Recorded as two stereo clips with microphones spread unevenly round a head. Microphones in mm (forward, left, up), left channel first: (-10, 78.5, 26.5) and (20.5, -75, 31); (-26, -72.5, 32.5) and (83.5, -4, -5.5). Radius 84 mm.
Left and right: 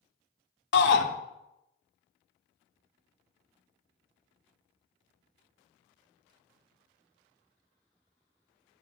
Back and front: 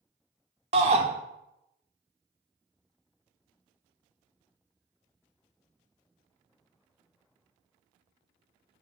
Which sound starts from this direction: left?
A shout, at 0.7 s.